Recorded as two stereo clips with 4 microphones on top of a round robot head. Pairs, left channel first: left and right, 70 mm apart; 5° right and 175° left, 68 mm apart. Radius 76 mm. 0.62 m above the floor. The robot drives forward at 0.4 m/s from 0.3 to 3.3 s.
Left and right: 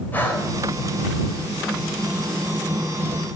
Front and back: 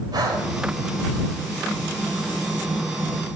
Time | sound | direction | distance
0.1 | breathing | 155° left | 3.5 m